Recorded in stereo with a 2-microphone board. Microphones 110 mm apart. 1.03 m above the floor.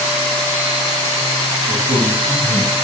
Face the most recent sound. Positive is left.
turn(degrees=-80)